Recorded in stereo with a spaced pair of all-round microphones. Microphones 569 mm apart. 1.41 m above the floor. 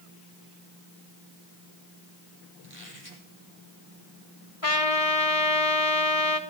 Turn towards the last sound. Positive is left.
turn(degrees=70)  # may be behind; listen again after turning